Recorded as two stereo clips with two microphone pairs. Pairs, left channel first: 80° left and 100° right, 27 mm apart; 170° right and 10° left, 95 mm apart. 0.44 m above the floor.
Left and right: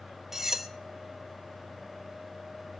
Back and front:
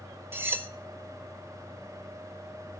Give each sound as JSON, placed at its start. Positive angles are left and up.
{"t": 0.3, "sound": "cutlery clinking", "azimuth_deg": -40, "distance_m": 0.6}